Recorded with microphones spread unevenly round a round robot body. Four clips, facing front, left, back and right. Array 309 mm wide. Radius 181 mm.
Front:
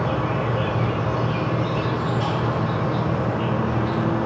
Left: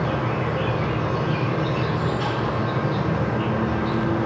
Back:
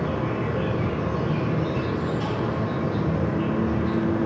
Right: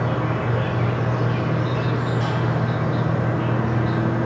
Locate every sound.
0.0 s an insect: 150° left, 3 m